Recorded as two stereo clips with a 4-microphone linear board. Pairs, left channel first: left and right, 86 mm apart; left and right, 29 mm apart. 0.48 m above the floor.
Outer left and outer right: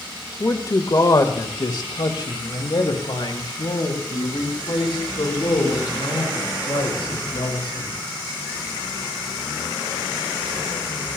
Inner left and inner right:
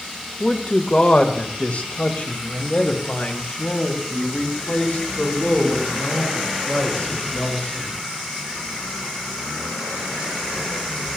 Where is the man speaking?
30° left (ahead or behind), 1.3 m; by 8.0 s 75° left (ahead or behind), 6 m.